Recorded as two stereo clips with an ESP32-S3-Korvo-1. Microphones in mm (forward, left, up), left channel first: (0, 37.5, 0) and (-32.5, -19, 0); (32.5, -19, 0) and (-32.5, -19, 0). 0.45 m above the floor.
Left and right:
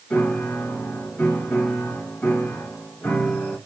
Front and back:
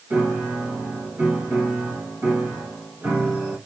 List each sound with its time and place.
0.1 s a piano: 125° left, 1.7 m